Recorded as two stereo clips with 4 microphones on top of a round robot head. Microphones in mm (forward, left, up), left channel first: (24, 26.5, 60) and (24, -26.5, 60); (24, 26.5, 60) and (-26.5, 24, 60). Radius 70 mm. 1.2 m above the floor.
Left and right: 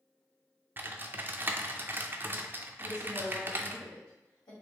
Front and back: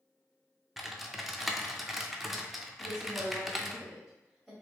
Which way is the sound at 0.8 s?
90° right.